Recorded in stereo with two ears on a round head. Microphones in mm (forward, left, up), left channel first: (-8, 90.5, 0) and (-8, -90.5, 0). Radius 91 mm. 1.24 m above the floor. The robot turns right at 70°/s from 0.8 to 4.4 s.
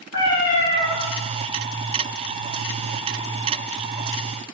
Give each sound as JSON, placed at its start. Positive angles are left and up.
{"t": 0.1, "sound": "a cat meowing", "side_deg": 55, "distance_m": 2.0}